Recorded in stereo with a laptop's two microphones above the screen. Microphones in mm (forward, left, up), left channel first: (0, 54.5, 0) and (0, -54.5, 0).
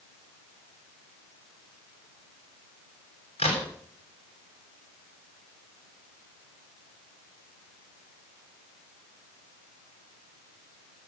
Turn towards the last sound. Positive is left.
turn(degrees=85)